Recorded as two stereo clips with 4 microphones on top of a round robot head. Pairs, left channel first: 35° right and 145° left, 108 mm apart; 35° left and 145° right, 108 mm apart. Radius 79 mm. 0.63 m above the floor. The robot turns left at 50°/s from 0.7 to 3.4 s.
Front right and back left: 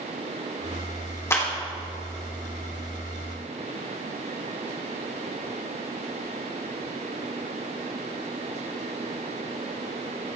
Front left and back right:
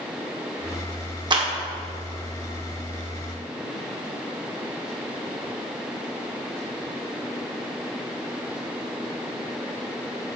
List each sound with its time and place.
1.3 s a clap: 100° right, 1.9 m; by 1.5 s 110° right, 1.9 m